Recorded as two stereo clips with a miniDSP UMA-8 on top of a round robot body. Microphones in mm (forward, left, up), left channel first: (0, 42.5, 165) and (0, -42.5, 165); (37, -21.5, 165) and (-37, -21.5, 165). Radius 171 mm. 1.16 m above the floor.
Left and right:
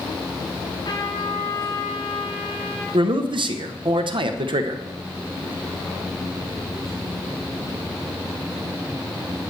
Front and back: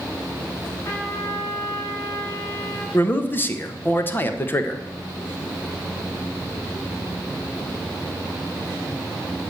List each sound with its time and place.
0.8 s a trumpet: 50° left, 7 m
2.9 s a man speaking: 65° right, 1.3 m